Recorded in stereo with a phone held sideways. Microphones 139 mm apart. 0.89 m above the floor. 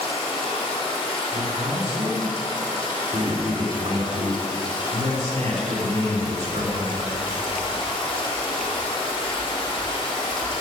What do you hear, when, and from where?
0.0 s running water: 40° left (ahead or behind), 2.0 m
1.3 s a man speaking: 60° right (ahead or behind), 3 m